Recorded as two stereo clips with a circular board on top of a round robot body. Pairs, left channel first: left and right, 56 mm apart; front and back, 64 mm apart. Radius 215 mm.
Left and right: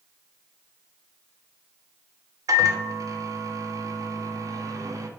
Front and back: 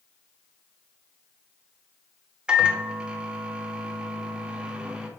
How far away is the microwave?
About 0.6 m.